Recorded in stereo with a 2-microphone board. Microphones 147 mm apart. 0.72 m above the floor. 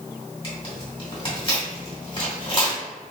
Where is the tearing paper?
35° left (ahead or behind), 1.9 m.